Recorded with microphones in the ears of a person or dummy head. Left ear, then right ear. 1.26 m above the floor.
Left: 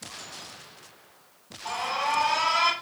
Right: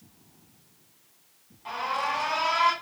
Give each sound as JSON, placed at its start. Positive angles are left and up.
{"t": 1.6, "sound": "an alarm", "side_deg": 10, "distance_m": 5.5}